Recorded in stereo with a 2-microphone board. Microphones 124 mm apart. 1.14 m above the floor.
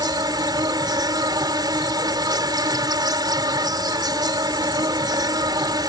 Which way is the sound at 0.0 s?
35° right (ahead or behind).